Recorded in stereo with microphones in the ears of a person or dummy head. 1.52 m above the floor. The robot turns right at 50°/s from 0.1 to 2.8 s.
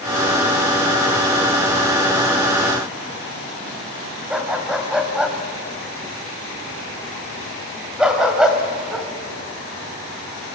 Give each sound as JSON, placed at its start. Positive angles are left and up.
{"t": 4.3, "sound": "a dog barking", "side_deg": -5, "distance_m": 2.5}